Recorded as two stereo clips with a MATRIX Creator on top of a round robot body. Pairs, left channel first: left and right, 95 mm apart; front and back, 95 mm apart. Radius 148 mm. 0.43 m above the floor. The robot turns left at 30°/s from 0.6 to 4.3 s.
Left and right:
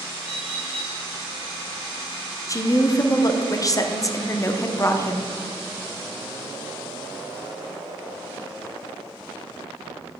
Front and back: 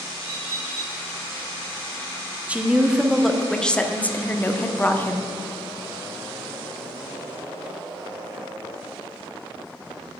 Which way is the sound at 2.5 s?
110° left.